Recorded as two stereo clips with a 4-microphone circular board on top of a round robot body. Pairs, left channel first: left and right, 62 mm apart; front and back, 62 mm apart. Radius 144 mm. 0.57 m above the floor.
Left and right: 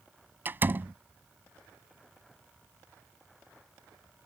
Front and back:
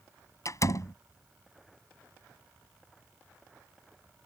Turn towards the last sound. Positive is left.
turn(degrees=-35)